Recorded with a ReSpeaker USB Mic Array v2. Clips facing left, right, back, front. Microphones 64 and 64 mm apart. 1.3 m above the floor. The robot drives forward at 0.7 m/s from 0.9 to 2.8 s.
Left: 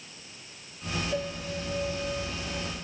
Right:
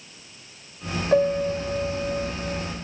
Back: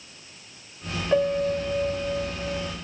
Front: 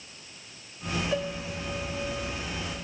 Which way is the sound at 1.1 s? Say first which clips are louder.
Right 13 dB, back 9 dB; 115° right.